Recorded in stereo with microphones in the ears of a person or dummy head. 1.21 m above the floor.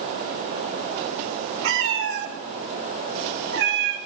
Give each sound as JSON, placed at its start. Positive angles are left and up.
{"t": 1.6, "sound": "a cat meowing", "side_deg": -65, "distance_m": 1.8}